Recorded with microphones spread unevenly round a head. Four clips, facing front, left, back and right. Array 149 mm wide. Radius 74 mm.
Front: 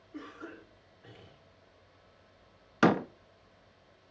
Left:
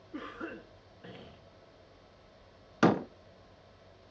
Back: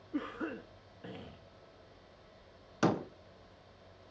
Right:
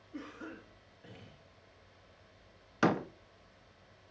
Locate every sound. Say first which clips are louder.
0.1 s a cough: left 4 dB, back 7 dB; 160° left, 2.5 m
2.8 s a door slam: left 4 dB, front 6 dB; 35° left, 0.6 m